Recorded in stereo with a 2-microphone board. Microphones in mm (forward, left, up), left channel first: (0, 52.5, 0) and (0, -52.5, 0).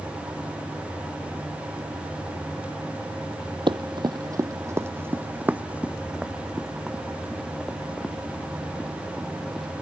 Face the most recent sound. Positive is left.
turn(degrees=5)  # may be behind; listen again after turning